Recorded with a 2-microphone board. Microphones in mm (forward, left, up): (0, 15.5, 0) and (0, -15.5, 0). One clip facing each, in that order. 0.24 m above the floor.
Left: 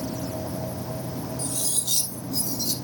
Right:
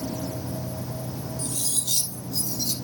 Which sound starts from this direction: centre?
Cutlery clinking, at 1.4 s.